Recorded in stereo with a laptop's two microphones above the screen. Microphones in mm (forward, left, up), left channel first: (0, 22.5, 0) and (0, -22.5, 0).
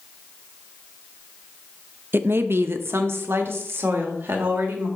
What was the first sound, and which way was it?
A woman speaking, 50° right (ahead or behind).